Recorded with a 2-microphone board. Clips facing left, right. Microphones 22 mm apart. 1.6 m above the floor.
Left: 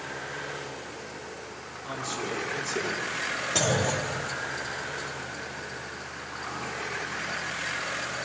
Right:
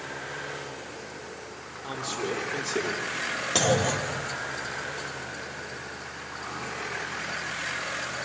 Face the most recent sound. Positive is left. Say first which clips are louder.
# right 2 dB
turn(degrees=-40)  # may be behind; listen again after turning